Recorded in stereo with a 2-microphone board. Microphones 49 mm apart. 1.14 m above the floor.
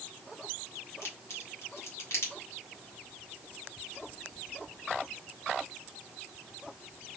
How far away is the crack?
About 1.5 m.